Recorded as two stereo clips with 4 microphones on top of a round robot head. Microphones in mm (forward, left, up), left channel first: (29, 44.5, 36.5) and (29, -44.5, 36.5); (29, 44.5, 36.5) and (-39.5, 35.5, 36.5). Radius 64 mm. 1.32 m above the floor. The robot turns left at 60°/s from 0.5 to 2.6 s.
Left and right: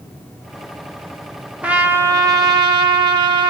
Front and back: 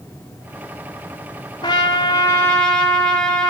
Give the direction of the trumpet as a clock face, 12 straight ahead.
1 o'clock.